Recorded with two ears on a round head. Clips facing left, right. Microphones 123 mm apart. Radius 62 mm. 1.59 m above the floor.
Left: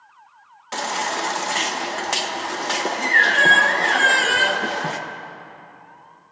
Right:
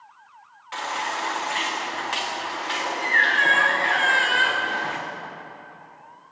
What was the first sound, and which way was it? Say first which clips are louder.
A baby crying: left 4 dB; 50° left (ahead or behind).